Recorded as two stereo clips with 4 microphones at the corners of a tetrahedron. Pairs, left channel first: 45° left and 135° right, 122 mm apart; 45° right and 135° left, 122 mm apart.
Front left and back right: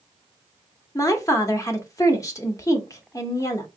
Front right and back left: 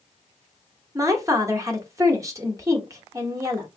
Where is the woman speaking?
90° left, 0.8 m.